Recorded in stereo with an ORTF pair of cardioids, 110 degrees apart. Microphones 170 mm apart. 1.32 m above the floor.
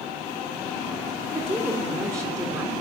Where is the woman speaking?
15° right, 3.5 m.